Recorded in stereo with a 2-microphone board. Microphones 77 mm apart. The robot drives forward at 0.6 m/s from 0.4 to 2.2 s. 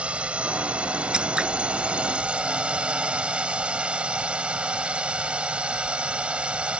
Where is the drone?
15° right (ahead or behind).